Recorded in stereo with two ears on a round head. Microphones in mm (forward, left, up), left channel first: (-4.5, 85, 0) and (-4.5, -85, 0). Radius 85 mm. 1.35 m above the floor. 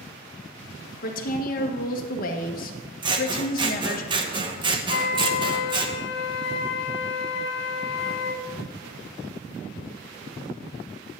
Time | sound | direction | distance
1.0 | a woman speaking | 45° left (ahead or behind) | 1.3 m
3.0 | scissors | 25° right (ahead or behind) | 0.9 m
4.9 | a flute | 65° left (ahead or behind) | 0.9 m